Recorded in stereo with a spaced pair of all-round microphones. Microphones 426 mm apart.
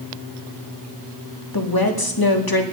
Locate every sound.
1.5 s a woman speaking: 55° left (ahead or behind), 2 m